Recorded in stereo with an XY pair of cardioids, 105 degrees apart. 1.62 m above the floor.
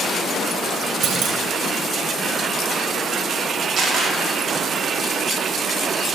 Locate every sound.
1.0 s a clunk: 65° right, 0.8 m
3.8 s a camera shutter: 40° right, 1.9 m